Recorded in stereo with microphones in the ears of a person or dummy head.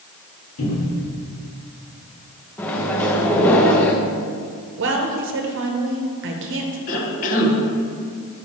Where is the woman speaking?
65° right (ahead or behind), 0.8 m.